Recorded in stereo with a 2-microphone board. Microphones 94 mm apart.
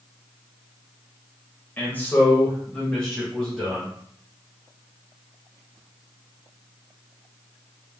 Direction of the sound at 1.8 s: 20° left (ahead or behind).